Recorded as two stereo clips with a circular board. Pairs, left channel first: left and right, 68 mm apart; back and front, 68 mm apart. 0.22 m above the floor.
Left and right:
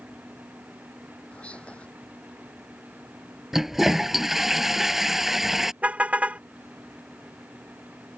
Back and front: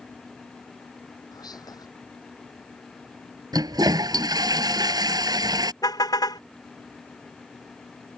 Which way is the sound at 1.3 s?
165° left.